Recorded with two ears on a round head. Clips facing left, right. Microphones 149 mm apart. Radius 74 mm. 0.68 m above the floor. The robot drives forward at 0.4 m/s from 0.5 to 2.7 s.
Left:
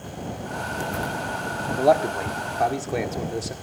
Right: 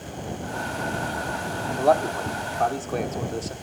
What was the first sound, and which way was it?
A man speaking, 15° left (ahead or behind).